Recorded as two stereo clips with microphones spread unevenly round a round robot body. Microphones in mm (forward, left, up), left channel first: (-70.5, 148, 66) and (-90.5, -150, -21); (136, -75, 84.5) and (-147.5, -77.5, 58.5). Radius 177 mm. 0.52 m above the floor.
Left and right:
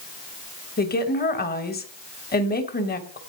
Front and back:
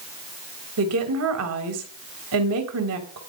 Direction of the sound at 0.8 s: 150° left.